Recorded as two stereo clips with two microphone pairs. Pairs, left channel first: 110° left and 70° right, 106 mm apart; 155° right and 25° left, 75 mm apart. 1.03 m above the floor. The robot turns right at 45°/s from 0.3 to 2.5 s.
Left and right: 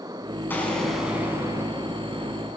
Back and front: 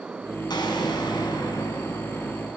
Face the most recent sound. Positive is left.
turn(degrees=-85)